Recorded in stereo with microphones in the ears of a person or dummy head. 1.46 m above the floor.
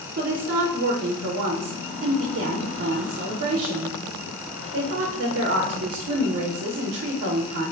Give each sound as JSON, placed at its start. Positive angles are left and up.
{"t": 0.2, "sound": "a woman speaking", "side_deg": -45, "distance_m": 0.5}